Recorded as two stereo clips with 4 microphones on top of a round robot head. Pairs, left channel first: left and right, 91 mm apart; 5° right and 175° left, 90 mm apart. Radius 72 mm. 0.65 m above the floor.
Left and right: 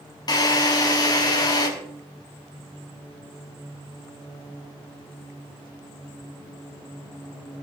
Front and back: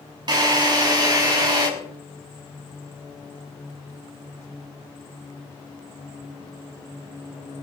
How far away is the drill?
About 5.5 m.